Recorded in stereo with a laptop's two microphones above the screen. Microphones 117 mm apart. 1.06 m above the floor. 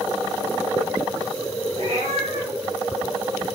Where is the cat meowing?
70° right (ahead or behind), 1.6 m.